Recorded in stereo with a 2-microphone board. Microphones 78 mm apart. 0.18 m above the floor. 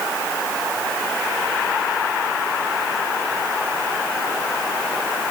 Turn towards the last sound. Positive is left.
No sound to turn to.